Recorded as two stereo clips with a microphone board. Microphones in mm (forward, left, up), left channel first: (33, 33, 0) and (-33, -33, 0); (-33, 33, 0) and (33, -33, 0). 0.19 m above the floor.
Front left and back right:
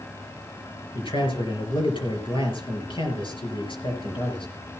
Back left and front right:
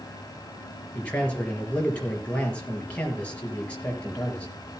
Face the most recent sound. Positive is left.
turn(degrees=60)